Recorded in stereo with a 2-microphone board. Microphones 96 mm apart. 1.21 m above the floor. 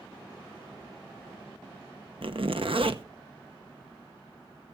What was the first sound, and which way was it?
A zipper, 65° right (ahead or behind).